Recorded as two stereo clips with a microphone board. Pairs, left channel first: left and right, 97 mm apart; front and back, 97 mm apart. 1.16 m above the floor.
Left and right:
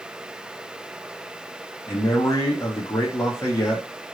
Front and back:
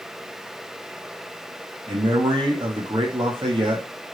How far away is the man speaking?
About 2 m.